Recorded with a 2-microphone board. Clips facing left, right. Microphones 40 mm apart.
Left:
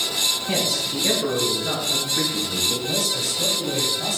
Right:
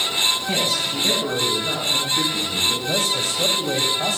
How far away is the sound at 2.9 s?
About 3 m.